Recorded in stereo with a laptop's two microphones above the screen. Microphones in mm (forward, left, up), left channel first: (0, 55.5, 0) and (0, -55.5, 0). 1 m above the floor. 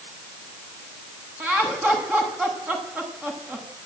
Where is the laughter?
15° right (ahead or behind), 8.5 m.